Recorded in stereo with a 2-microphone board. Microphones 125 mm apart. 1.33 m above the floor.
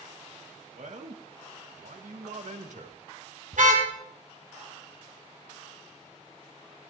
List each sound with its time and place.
0.8 s a man speaking: 70° right (ahead or behind), 1.9 m; by 3.0 s 65° right (ahead or behind), 1.8 m
3.5 s a car horn: 75° right (ahead or behind), 3.5 m